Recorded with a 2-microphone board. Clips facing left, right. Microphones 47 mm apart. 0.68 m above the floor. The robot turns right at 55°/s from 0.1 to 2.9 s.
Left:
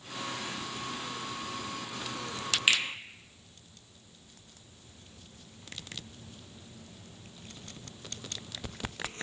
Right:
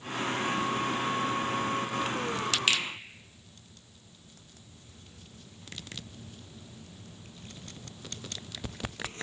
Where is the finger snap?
15° left (ahead or behind), 0.6 m.